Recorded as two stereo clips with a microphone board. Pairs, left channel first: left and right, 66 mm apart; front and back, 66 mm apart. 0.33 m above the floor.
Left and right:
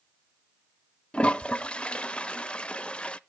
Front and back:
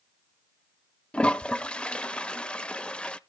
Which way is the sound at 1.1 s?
40° left.